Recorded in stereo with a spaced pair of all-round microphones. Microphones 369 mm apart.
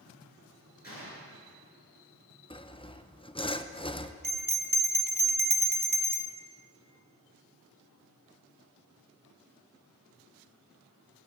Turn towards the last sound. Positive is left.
turn(degrees=-65)  # may be behind; listen again after turning